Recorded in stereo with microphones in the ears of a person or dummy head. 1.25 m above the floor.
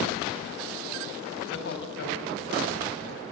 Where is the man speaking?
70° left (ahead or behind), 7 m; by 3.2 s 80° left, 7 m.